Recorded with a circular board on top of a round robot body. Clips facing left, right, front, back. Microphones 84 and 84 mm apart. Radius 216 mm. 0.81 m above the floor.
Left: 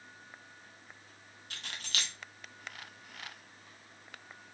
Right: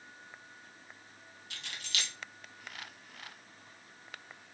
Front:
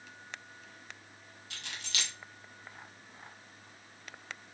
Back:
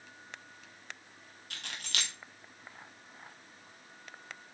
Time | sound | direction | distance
1.5 | keys jangling | 140° left | 0.5 m